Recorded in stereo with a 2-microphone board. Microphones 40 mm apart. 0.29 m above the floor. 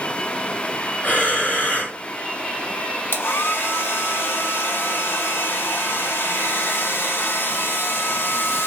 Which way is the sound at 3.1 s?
65° left (ahead or behind).